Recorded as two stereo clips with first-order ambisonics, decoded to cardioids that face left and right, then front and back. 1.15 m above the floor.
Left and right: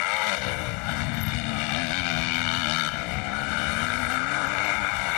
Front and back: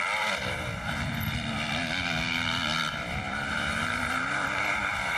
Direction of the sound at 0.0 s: 90° left.